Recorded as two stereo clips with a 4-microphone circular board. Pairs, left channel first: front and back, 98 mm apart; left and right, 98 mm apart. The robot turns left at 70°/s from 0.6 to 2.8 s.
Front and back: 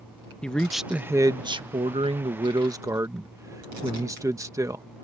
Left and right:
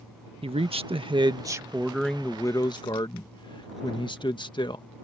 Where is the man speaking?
80° right; by 4.8 s 125° left.